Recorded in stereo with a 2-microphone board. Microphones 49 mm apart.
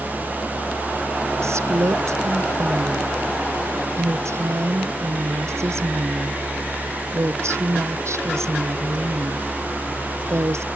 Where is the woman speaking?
75° right (ahead or behind).